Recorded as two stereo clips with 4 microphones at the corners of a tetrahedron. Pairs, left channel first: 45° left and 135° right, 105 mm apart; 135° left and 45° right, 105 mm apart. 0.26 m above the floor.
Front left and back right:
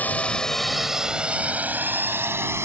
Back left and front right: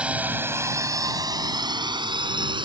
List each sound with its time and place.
0.0 s a drone: 10° left; by 2.6 s 75° right